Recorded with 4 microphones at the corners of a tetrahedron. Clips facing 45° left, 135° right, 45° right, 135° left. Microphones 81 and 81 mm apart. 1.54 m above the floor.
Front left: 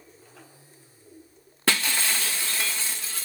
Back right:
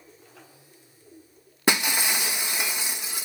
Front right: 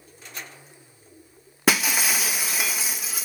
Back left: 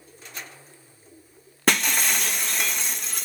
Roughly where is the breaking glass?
Right.